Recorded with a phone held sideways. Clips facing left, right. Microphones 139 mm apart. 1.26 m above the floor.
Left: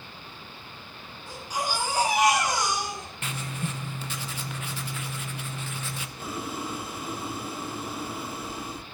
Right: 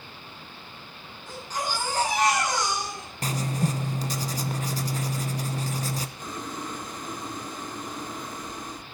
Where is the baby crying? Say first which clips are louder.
Left 1 dB; 10° left (ahead or behind), 8.5 m.